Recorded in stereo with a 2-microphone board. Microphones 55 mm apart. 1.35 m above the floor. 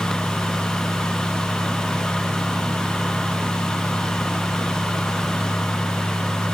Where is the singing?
No singing in this recording.